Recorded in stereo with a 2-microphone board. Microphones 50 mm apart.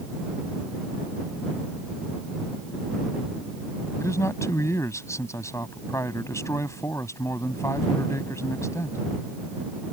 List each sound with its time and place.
4.0 s a man speaking: 85° left